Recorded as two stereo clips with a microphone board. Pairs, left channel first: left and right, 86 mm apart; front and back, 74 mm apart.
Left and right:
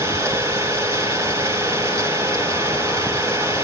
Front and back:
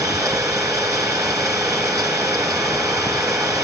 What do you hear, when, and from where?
0.0 s an engine running: 140° right, 6 m